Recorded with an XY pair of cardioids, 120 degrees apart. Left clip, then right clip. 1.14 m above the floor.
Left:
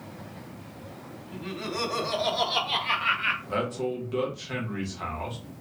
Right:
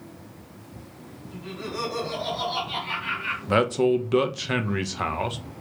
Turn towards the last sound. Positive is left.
turn(degrees=-60)